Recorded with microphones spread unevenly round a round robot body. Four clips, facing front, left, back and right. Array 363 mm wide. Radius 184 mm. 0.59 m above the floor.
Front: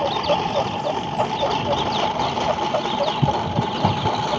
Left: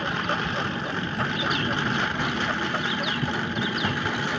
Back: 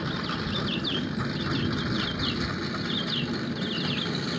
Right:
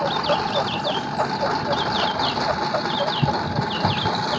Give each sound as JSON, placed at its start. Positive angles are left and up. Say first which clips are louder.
{"t": 0.0, "sound": "a lawn mower", "louder": "right 6 dB, front 11 dB", "azimuth_deg": -30}